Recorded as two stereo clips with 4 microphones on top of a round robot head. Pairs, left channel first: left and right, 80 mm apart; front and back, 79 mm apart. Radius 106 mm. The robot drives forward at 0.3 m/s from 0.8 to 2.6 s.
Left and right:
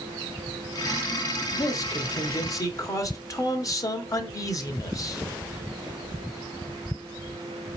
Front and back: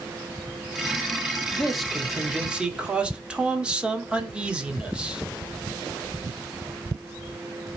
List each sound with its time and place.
1.5 s a man speaking: 90° left, 1.2 m; by 5.2 s 110° left, 1.2 m